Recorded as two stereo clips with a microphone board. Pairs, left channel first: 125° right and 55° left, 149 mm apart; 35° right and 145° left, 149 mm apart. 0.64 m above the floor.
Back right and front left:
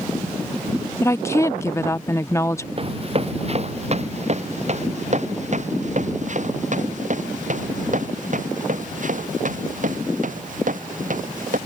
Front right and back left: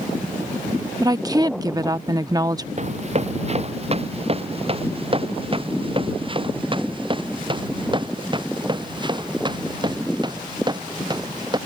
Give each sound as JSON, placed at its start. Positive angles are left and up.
{"t": 1.0, "sound": "a woman speaking", "azimuth_deg": 180}
{"t": 2.8, "sound": "running footsteps", "azimuth_deg": 105}